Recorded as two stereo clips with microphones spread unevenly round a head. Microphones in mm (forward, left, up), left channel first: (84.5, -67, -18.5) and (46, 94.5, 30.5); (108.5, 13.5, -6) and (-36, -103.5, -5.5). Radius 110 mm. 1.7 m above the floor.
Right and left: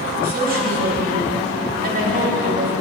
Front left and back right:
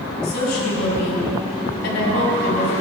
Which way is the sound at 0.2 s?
75° left.